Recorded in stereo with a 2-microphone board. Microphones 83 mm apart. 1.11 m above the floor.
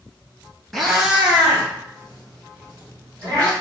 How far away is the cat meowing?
About 1.5 m.